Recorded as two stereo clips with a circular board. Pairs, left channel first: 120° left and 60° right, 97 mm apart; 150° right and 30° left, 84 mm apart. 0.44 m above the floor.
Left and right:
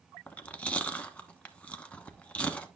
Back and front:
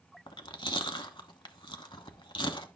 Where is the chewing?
165° right, 0.9 m.